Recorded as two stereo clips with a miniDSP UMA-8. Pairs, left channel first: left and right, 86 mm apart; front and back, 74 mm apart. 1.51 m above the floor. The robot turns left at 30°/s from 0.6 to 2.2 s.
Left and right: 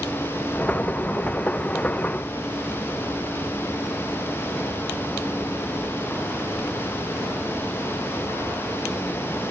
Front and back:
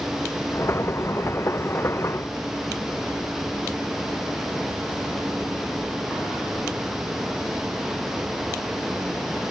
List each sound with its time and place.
Only background noise.